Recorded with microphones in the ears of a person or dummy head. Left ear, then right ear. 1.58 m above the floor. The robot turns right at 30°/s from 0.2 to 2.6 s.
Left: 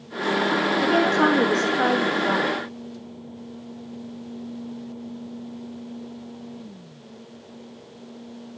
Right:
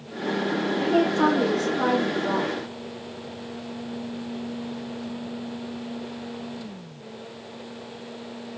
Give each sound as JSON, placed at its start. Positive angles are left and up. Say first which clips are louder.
{"t": 0.8, "sound": "a woman speaking", "louder": "left 1 dB", "azimuth_deg": 75, "distance_m": 1.4}